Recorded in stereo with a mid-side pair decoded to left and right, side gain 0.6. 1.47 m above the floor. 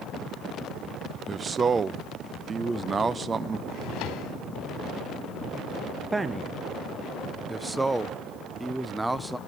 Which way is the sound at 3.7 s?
70° left.